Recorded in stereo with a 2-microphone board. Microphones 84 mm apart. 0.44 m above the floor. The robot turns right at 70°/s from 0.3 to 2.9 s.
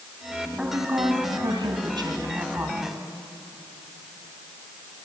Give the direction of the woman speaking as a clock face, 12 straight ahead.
6 o'clock.